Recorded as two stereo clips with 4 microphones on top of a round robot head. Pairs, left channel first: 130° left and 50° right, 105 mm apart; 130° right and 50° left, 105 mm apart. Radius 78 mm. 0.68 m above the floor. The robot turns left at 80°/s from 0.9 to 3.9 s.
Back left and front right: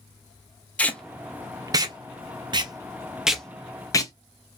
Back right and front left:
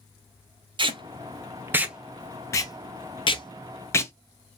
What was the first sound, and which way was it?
Tape being pulled, 55° left.